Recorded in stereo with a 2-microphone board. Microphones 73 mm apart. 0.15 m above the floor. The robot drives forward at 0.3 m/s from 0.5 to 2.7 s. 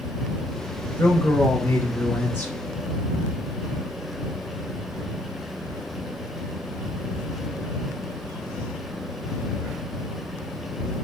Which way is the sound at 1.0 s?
25° left (ahead or behind).